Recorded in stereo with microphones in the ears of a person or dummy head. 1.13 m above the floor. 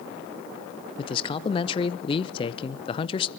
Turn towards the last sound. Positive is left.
turn(degrees=25)  # may be behind; listen again after turning